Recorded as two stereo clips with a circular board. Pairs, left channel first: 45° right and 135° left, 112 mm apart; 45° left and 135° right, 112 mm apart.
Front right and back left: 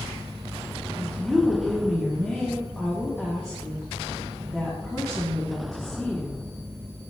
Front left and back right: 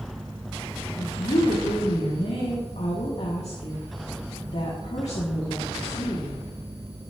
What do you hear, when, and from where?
1.0 s a woman speaking: 40° left, 2 m